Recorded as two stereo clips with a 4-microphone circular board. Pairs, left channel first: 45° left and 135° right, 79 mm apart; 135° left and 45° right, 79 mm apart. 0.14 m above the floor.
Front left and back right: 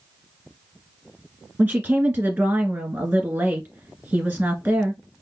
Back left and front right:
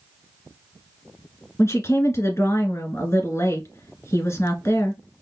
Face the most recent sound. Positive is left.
turn(degrees=160)